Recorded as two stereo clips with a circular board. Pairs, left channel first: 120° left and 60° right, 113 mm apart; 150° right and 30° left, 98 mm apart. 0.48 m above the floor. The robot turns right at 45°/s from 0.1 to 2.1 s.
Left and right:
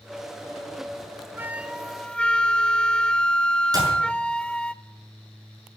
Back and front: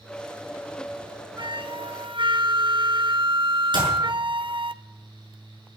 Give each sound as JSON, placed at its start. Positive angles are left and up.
{"t": 1.4, "sound": "a flute", "azimuth_deg": 10, "distance_m": 0.6}
{"t": 3.7, "sound": "a clap", "azimuth_deg": -5, "distance_m": 6.5}